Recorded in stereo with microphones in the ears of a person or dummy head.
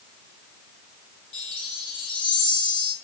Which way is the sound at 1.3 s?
30° left (ahead or behind).